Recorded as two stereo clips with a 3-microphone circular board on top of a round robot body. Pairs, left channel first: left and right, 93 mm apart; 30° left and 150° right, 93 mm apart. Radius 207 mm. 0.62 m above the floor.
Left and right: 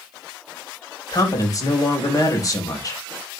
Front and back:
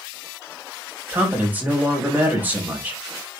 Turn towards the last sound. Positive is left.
turn(degrees=140)